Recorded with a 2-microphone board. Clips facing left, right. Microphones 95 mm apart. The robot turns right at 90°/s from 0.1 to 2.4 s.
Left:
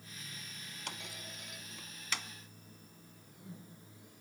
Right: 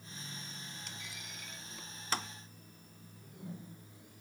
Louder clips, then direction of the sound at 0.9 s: Left 3 dB; 65° left (ahead or behind).